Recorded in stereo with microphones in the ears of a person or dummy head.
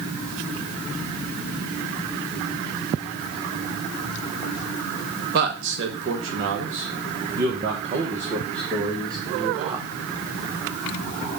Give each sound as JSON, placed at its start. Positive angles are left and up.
{"t": 5.3, "sound": "a man speaking", "side_deg": -50, "distance_m": 1.4}